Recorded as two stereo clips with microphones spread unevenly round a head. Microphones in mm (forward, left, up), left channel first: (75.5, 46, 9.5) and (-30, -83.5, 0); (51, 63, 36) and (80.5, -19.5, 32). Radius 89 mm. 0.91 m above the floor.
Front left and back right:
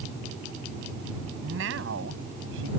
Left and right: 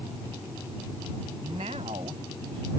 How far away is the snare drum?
I don't hear a snare drum.